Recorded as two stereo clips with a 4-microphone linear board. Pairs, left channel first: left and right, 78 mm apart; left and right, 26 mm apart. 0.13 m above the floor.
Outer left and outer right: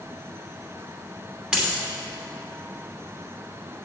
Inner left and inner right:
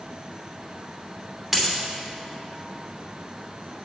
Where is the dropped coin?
10° right (ahead or behind), 2.5 m.